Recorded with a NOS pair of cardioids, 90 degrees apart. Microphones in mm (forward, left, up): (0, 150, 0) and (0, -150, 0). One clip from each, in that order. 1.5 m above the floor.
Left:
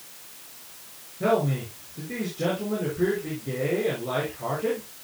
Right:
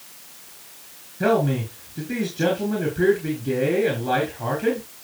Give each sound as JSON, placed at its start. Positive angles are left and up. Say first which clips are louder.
{"t": 1.2, "sound": "a man speaking", "louder": "right 3 dB", "azimuth_deg": -40, "distance_m": 6.0}